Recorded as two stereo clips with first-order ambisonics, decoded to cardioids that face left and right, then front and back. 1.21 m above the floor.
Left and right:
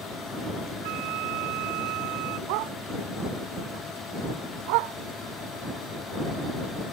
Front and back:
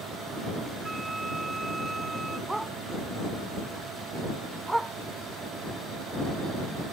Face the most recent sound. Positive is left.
turn(degrees=-95)